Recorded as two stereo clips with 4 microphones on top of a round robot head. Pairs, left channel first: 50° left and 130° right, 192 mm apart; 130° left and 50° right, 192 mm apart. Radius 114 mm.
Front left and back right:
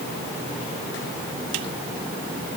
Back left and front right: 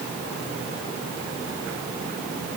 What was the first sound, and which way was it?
Only background noise.